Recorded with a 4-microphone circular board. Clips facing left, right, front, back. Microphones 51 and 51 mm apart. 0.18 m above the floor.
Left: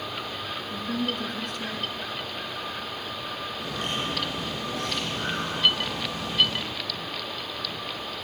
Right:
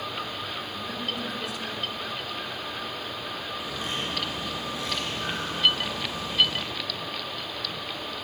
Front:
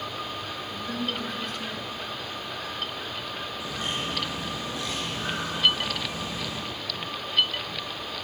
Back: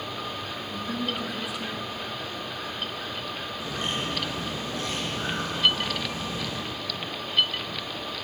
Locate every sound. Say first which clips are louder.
0.7 s a woman speaking: left 3 dB, back 1 dB; 100° left, 2.5 m
3.6 s a bird: left 3 dB, back 2 dB; 125° left, 4.5 m